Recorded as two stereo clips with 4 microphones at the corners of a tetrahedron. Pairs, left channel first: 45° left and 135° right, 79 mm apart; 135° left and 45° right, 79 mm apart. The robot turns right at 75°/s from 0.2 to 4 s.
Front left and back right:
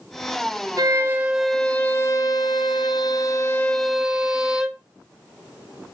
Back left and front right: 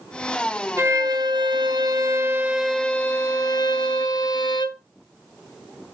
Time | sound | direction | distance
0.8 | a violin | 95° right | 1.7 m